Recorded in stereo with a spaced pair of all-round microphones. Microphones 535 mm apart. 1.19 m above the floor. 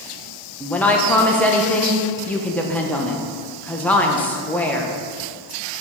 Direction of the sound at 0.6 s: 5° left (ahead or behind).